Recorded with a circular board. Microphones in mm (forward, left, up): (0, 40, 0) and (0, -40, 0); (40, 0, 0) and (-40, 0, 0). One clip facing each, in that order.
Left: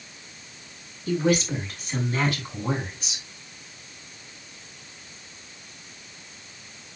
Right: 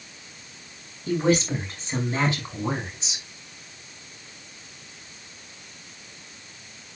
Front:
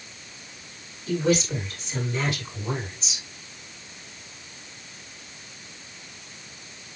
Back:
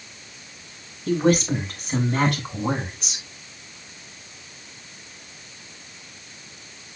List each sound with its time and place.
1.1 s a woman speaking: 150° right, 6.5 m; by 3.2 s 155° right, 6 m